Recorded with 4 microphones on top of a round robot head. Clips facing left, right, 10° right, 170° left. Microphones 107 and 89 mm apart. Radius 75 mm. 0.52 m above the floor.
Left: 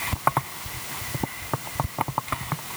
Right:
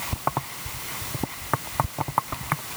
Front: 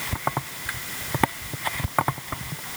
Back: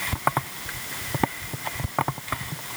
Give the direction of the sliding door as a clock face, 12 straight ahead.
I don't hear a sliding door.